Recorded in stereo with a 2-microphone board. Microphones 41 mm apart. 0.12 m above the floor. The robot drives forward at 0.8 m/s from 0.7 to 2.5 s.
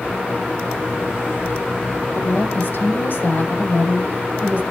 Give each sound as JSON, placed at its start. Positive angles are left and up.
{"t": 2.1, "sound": "a woman speaking", "side_deg": 50, "distance_m": 4.0}